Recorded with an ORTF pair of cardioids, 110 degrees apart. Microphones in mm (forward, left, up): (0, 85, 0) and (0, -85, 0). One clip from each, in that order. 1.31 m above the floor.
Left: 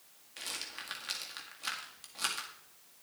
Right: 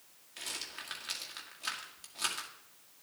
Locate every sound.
0.4 s a rattle: 5° left, 1.9 m